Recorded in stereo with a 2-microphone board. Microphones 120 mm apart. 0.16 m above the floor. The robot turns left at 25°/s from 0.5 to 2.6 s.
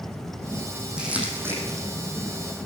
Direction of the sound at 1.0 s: 10° right (ahead or behind).